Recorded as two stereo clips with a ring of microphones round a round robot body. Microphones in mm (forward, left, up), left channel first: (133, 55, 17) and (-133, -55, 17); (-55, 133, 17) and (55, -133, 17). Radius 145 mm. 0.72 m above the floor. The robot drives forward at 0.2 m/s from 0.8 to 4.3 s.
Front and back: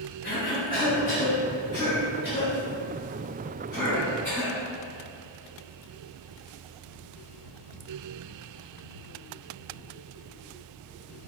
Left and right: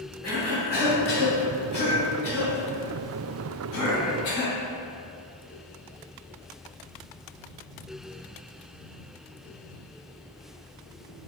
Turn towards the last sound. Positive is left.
turn(degrees=105)